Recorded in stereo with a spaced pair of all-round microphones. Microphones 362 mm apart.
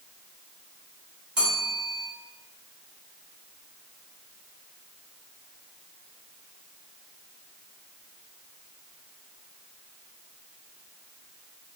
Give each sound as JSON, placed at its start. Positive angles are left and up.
{"t": 1.4, "sound": "a bell", "side_deg": -65, "distance_m": 2.5}